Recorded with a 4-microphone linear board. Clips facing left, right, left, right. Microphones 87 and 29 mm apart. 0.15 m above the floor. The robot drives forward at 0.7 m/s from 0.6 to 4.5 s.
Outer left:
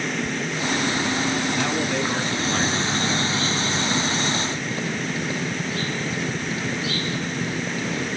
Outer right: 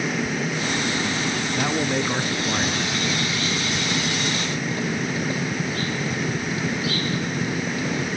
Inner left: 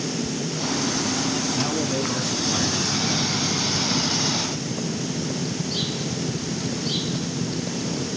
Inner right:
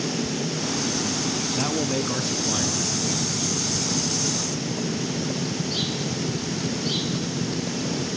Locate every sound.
1.6 s a man speaking: 15° right (ahead or behind), 1.1 m; by 3.5 s 5° right (ahead or behind), 2.0 m